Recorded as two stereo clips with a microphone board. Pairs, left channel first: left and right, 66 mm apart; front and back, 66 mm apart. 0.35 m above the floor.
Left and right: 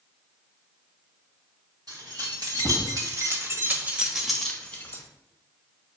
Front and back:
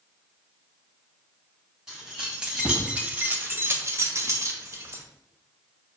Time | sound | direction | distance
1.9 | keys jangling | 100° right | 1.5 m